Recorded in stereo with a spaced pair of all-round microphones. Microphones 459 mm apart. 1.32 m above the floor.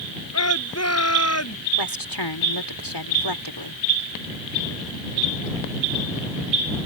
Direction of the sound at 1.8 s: 60° left (ahead or behind).